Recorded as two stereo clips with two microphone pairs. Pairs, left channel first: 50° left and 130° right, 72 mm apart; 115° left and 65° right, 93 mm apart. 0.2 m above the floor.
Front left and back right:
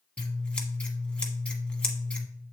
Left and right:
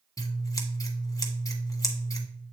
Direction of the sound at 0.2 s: 115° left.